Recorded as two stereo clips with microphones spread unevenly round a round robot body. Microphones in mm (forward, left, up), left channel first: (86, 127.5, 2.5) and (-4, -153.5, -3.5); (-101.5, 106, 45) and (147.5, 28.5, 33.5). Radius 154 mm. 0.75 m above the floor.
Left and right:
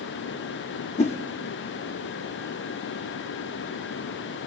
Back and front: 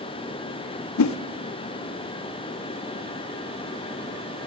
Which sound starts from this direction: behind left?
A whoosh, at 1.0 s.